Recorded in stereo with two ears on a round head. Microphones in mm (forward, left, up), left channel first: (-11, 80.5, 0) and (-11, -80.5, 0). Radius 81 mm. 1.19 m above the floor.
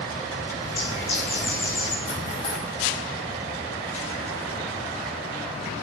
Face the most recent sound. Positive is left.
turn(degrees=35)  # may be behind; listen again after turning